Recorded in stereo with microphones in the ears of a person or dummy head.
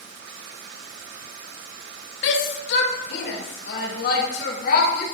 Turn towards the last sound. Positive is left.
turn(degrees=55)  # may be behind; listen again after turning